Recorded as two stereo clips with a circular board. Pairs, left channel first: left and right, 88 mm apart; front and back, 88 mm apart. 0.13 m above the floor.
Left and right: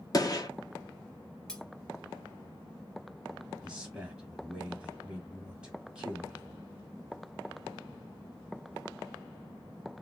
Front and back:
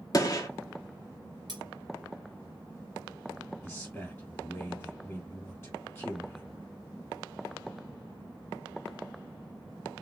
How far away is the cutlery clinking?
About 1.1 m.